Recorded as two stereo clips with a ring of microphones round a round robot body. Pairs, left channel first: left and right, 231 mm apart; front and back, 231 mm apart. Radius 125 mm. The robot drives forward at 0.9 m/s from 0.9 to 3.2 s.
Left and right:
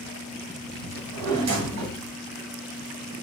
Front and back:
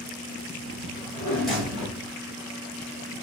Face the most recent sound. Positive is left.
turn(degrees=-140)